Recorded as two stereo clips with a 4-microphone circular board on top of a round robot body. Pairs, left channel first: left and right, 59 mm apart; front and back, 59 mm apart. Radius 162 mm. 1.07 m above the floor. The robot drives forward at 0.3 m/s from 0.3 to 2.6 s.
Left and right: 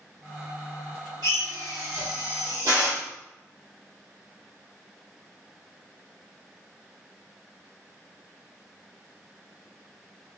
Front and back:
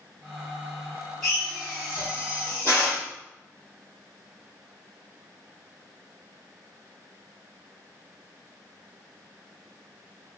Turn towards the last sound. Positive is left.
turn(degrees=-130)